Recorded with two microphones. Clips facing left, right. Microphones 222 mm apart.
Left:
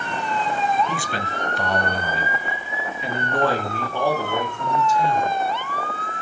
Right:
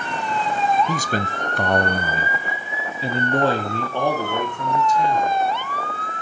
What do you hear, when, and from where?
0.9 s a man speaking: 40° right (ahead or behind), 0.7 m; by 5.4 s 15° right (ahead or behind), 2 m